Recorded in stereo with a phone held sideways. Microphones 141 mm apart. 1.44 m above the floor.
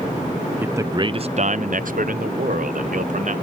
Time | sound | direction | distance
0.6 | a man speaking | 15° right (ahead or behind) | 0.8 m